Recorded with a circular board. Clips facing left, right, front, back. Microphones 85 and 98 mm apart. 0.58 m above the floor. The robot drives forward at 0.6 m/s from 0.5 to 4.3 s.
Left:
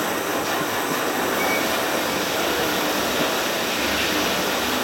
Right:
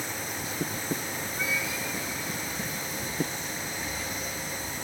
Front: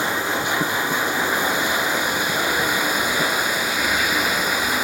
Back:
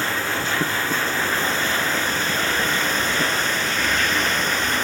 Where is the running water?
75° left; by 4.8 s 80° left.